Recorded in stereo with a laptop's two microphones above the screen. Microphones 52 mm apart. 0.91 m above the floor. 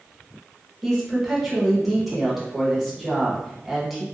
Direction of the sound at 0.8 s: Centre (ahead or behind).